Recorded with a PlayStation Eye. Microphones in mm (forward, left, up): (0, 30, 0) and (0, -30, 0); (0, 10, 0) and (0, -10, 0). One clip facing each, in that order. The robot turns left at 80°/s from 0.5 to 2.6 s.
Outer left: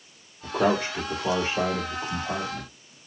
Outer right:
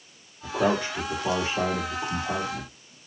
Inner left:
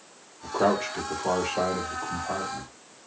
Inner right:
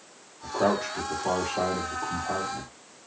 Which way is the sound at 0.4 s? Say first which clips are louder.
Outer left 1 dB, inner left 1 dB; 40° left (ahead or behind).